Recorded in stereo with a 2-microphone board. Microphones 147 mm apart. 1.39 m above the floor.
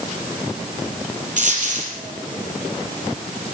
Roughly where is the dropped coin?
Right.